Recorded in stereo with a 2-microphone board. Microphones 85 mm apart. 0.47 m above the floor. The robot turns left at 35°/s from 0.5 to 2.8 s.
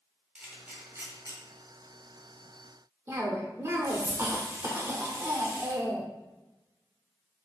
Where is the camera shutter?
10° right (ahead or behind), 1.8 m; by 1.4 s 35° right (ahead or behind), 1.8 m.